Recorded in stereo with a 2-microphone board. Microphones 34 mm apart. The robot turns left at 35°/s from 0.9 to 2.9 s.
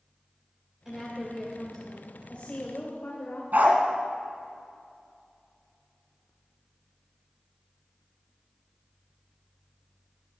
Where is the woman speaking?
165° right, 2.5 m; by 3.4 s 125° left, 2.5 m.